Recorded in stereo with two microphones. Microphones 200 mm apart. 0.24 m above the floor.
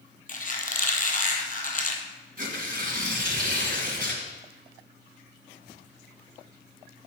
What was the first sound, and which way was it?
A squeak, 45° left (ahead or behind).